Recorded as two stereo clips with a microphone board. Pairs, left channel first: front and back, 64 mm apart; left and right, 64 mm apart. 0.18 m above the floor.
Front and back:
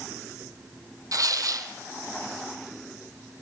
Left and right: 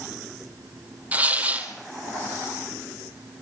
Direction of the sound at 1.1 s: 155° right.